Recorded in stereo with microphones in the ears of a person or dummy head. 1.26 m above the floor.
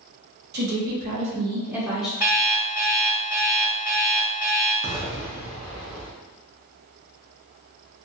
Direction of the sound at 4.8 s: 10° right (ahead or behind).